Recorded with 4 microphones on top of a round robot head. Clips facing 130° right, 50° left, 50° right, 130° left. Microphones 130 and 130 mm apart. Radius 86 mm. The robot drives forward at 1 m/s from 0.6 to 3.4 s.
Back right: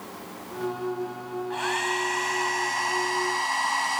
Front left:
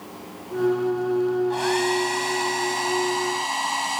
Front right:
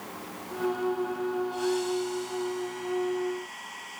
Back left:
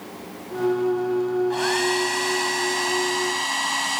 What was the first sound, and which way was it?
A hair dryer, 105° left.